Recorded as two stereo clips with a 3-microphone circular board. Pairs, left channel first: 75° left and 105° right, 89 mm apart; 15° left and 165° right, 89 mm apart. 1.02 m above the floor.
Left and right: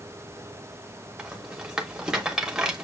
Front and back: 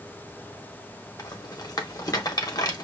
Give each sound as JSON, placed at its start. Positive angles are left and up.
{"t": 1.2, "sound": "a rattle", "azimuth_deg": -25, "distance_m": 1.1}